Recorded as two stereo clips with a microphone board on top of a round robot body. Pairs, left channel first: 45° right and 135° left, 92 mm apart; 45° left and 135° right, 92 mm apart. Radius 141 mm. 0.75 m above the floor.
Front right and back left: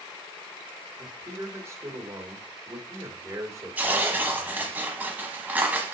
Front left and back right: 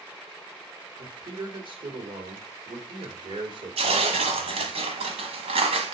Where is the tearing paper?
150° right, 1.1 m.